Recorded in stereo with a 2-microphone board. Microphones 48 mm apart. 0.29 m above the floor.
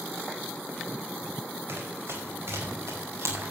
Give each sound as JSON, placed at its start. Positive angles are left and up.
{"t": 1.7, "sound": "running footsteps", "side_deg": -75, "distance_m": 7.5}